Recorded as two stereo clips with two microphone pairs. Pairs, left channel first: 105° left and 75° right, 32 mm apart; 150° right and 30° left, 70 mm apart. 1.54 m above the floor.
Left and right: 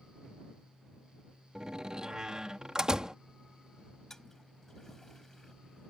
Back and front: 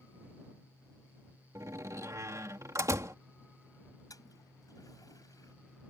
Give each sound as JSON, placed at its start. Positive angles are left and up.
{"t": 1.6, "sound": "a door slam", "azimuth_deg": -10}
{"t": 4.1, "sound": "a toilet flushing", "azimuth_deg": 180}